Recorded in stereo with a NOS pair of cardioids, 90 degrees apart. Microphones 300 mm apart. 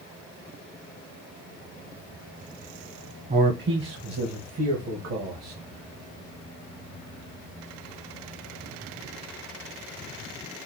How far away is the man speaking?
About 1.2 m.